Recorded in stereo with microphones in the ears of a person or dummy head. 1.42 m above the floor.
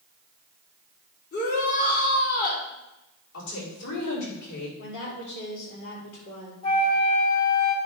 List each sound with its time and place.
1.3 s a shout: 50° left (ahead or behind), 4.5 m
3.3 s a woman speaking: 65° left (ahead or behind), 5 m
4.8 s a woman speaking: 70° left (ahead or behind), 4 m
6.6 s a flute: 30° left (ahead or behind), 1.6 m